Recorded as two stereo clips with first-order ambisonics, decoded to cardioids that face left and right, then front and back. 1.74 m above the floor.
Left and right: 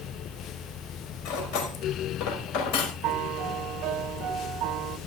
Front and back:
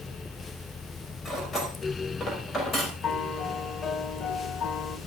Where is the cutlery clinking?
70° left, 5 m.